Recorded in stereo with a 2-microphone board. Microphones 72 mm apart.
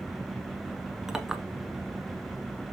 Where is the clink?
5° right (ahead or behind), 0.7 m.